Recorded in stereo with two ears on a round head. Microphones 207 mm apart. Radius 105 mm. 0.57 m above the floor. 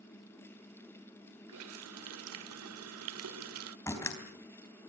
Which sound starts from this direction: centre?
A door slam, at 3.9 s.